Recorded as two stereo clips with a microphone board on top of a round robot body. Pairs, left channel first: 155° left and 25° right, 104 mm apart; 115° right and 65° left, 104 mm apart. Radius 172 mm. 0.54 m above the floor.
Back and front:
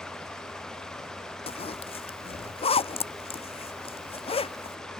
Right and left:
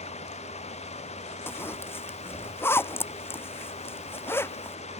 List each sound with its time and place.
0.0 s running water: 120° right
1.5 s a zipper: straight behind